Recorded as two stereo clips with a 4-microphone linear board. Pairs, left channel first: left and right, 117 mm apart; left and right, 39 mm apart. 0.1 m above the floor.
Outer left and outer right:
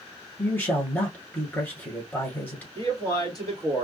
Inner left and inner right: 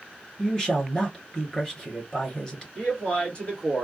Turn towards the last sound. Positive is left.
turn(degrees=35)  # may be behind; listen again after turning